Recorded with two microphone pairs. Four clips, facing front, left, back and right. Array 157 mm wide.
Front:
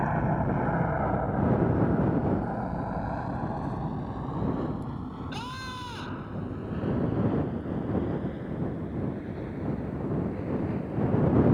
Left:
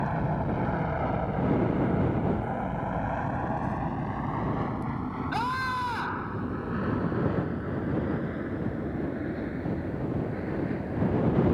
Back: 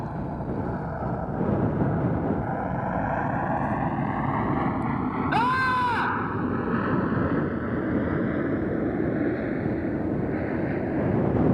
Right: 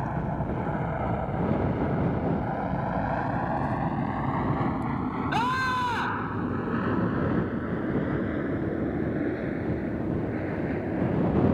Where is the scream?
165° right.